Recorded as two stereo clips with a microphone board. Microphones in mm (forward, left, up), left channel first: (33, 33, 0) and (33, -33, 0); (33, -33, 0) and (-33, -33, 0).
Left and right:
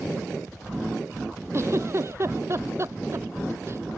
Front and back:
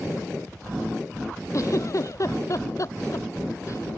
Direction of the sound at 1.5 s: 40° right.